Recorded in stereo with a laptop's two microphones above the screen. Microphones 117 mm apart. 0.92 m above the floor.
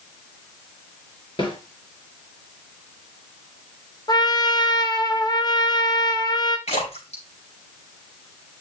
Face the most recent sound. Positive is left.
turn(degrees=65)  # may be behind; listen again after turning